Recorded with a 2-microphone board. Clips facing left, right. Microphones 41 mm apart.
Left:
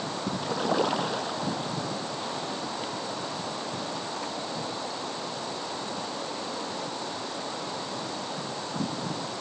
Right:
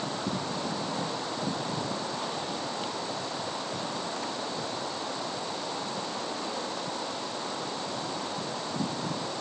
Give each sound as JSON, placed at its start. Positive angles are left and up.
{"t": 0.4, "sound": "a splash", "side_deg": 85}